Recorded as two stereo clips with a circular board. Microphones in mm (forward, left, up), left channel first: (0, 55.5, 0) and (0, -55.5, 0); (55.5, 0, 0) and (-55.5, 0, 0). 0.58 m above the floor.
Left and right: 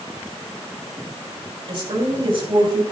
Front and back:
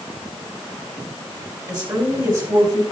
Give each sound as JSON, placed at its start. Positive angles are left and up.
{"t": 1.7, "sound": "a woman speaking", "azimuth_deg": -130, "distance_m": 3.0}